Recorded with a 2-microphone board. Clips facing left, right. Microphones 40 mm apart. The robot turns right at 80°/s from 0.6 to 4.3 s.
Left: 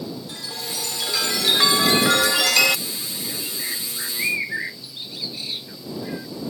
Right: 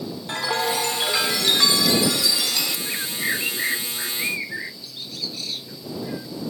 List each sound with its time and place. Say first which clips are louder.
0.3 s a chime: right 9 dB; 65° right; by 2.8 s 110° left
2.9 s a bird: right 6 dB; 80° right; by 6.3 s 15° left (ahead or behind)